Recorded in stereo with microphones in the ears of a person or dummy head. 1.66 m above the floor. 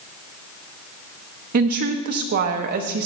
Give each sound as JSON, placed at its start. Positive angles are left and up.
{"t": 1.5, "sound": "a woman speaking", "side_deg": -45, "distance_m": 0.5}